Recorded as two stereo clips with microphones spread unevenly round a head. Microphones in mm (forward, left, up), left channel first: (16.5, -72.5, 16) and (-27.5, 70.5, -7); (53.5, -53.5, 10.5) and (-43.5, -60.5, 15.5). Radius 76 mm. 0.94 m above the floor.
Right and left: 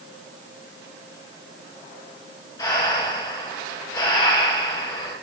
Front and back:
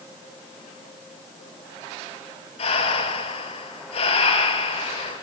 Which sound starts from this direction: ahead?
Breathing, at 2.6 s.